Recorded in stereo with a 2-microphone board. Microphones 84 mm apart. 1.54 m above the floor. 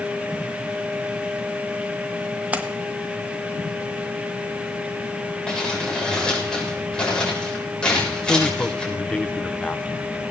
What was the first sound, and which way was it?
A splash, 20° right (ahead or behind).